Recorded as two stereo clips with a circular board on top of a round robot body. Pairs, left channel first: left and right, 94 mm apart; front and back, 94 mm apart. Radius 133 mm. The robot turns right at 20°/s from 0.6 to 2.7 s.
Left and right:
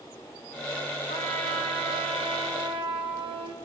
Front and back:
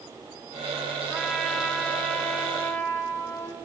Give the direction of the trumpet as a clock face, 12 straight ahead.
3 o'clock.